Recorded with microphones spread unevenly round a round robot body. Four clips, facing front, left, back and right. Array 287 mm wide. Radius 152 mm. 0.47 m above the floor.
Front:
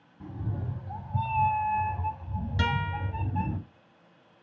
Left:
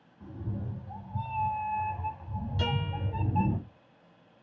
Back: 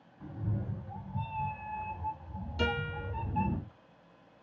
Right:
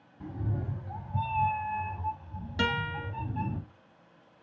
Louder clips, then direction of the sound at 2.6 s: Right 4 dB, front 3 dB; 65° right.